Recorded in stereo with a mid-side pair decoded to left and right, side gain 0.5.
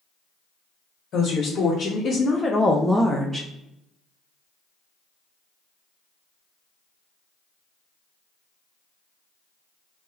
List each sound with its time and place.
1.1 s a woman speaking: 65° left, 1.0 m; by 3.5 s 35° right, 0.6 m